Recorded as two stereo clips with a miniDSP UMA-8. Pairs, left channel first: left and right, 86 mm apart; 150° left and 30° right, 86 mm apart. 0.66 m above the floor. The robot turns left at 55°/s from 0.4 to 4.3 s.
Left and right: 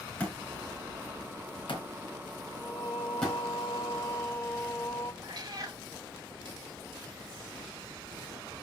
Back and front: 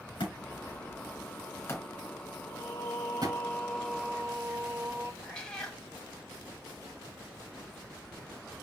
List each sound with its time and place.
0.2 s a thud: 165° left, 4 m; by 3.4 s straight ahead, 4 m
2.5 s singing: 130° left, 0.7 m; by 5.1 s 30° left, 0.7 m
5.2 s a cat meowing: 130° right, 1.4 m